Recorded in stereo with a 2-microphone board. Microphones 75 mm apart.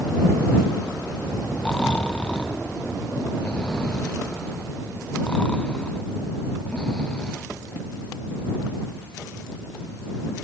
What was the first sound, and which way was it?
Snoring, 15° left (ahead or behind).